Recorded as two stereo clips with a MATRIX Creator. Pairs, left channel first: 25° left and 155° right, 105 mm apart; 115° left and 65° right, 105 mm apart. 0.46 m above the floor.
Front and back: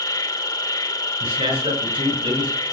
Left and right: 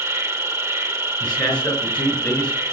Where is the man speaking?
170° right, 5.5 m.